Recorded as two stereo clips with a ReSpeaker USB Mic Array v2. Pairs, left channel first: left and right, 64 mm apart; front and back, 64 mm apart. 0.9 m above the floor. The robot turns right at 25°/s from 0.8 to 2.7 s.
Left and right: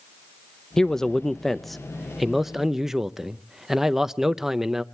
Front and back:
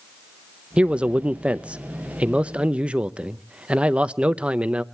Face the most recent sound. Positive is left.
turn(degrees=-165)